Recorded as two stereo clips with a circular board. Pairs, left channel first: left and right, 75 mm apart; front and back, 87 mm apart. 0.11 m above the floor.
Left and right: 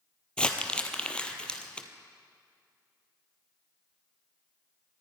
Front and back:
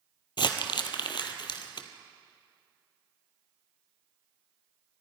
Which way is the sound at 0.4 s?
15° left.